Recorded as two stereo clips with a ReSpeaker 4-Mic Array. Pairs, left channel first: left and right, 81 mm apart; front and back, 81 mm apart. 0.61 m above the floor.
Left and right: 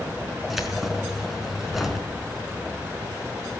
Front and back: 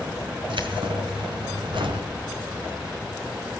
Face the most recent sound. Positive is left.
turn(degrees=180)